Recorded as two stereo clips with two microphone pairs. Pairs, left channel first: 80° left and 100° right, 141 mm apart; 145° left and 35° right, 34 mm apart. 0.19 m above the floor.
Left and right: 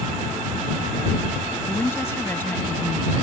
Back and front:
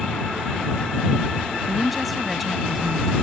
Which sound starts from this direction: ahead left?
A woman speaking, at 1.7 s.